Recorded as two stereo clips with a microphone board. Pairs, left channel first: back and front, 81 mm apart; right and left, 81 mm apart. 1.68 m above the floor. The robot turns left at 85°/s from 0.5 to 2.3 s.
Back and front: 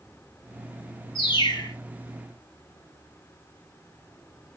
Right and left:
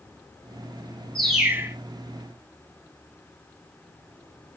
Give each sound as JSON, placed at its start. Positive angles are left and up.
{"t": 1.1, "sound": "a bird", "azimuth_deg": -170, "distance_m": 2.5}